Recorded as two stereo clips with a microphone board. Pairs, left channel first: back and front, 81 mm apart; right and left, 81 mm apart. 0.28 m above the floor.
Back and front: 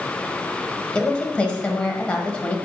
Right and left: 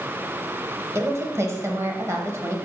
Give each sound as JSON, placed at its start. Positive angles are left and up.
{"t": 0.9, "sound": "a woman speaking", "azimuth_deg": 115, "distance_m": 1.2}